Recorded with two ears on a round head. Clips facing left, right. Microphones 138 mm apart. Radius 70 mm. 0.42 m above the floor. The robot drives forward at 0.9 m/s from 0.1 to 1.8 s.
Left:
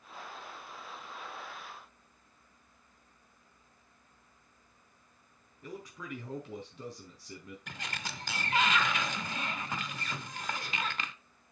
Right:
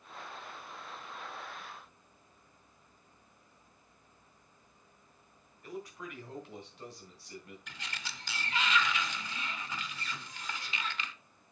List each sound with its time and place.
5.6 s a man speaking: 75° left (ahead or behind), 4 m
7.7 s a sliding door: 40° left (ahead or behind), 0.6 m